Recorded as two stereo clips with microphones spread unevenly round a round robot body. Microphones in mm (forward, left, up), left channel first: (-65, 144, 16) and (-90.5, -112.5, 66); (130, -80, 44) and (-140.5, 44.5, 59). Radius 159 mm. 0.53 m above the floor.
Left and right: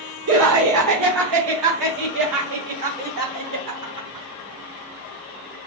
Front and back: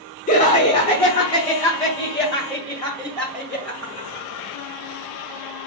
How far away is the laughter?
About 0.9 m.